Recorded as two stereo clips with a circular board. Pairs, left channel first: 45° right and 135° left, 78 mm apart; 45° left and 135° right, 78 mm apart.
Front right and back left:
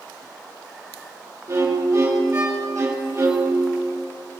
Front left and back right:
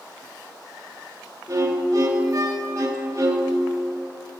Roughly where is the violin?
Behind.